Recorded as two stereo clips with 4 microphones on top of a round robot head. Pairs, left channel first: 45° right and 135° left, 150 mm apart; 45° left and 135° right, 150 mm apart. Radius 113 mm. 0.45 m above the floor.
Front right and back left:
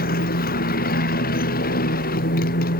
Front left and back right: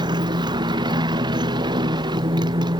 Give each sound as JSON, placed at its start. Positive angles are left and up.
{"t": 0.0, "sound": "a motorcycle", "azimuth_deg": -70}